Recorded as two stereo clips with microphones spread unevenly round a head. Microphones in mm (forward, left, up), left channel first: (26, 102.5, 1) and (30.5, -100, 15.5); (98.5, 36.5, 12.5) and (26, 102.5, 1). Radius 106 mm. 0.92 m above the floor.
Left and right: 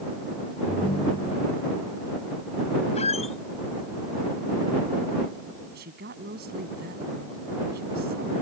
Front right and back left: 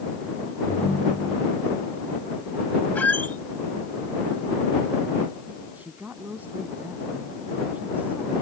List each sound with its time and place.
0.7 s a ringtone: 25° left
3.0 s a squeak: 30° left
5.7 s a woman speaking: 140° right